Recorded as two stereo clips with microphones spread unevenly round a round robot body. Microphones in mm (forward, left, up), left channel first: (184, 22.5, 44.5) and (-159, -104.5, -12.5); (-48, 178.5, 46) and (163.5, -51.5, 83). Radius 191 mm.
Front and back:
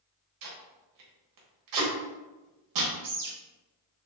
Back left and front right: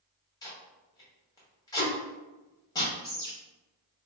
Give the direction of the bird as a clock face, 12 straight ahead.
5 o'clock.